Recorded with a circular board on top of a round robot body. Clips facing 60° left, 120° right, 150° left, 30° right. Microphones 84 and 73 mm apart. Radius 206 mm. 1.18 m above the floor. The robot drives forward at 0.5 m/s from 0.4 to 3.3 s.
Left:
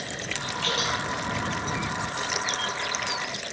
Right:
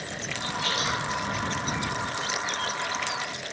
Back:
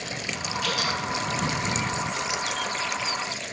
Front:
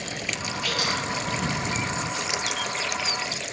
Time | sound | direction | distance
0.6 | dripping | 160° left | 2.0 m